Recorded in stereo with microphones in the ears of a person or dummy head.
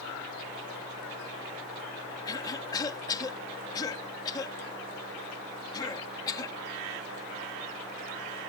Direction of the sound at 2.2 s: 20° left (ahead or behind).